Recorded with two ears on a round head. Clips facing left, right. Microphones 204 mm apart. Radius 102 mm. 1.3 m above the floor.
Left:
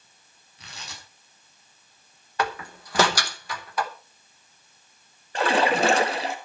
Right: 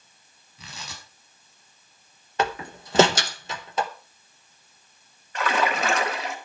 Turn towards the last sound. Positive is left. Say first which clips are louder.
# left 4 dB
turn(degrees=30)  # may be behind; listen again after turning